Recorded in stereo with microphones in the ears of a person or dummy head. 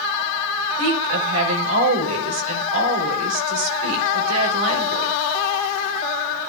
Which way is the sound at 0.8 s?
85° right.